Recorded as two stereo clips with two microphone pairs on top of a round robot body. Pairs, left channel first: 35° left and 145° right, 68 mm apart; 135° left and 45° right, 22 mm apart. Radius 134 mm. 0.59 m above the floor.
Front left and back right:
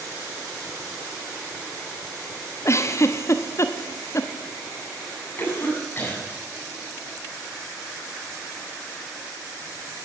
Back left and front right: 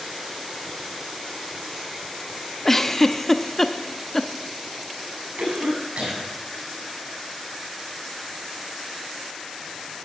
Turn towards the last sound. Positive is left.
turn(degrees=-20)